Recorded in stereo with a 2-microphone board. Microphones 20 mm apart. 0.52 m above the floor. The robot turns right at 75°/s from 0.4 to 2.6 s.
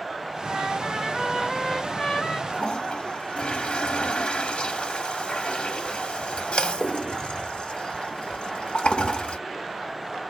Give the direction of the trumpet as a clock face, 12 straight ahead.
3 o'clock.